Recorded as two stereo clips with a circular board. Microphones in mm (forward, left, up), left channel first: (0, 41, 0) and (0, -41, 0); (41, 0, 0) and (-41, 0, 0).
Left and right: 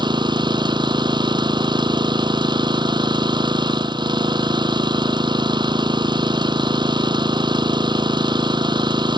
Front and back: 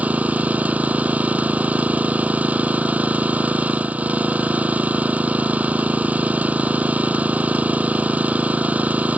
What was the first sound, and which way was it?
An engine running, 110° right.